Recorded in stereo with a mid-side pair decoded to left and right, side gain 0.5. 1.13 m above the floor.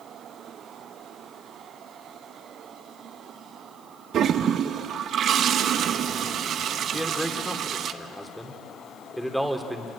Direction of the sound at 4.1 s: 60° right.